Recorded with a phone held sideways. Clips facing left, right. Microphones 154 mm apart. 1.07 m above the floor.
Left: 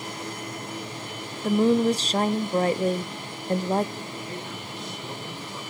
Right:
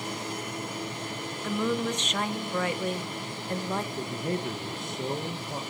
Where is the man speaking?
45° right (ahead or behind), 1.2 m.